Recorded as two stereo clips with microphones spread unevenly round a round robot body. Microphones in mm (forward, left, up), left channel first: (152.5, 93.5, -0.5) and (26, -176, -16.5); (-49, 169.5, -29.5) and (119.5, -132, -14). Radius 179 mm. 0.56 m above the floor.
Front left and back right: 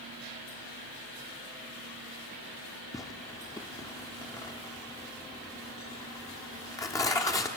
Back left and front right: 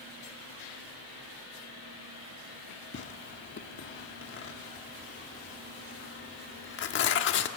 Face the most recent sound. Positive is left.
turn(degrees=145)